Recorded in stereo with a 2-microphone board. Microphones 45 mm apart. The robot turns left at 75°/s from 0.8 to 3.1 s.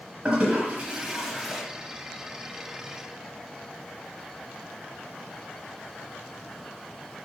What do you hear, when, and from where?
0.2 s a toilet flushing: 25° right (ahead or behind), 1.0 m; by 1.6 s 5° left (ahead or behind), 1.0 m